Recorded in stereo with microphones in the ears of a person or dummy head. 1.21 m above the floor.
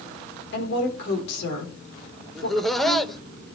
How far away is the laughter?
About 1.2 m.